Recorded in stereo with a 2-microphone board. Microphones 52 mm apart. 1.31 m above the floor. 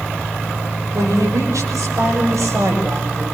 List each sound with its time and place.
0.9 s a woman speaking: 90° right, 6 m; by 3.2 s 80° right, 7.5 m